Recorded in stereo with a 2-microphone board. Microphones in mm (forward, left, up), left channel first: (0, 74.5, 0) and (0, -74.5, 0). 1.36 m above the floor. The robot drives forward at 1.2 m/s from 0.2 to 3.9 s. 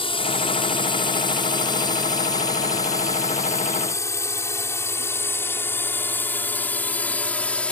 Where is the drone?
35° left (ahead or behind); by 7.7 s 5° left (ahead or behind).